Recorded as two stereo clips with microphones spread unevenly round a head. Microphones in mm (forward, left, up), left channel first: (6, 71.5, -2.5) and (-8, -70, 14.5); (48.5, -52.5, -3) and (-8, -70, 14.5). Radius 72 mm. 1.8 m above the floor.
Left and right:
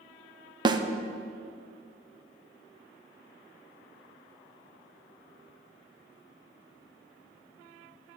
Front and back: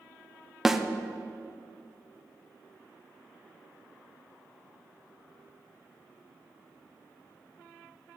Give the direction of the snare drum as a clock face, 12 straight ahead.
4 o'clock.